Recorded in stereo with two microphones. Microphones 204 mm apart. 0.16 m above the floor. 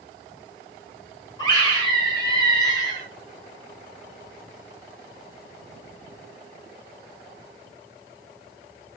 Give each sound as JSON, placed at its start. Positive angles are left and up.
{"t": 1.4, "sound": "a scream", "side_deg": 20, "distance_m": 2.0}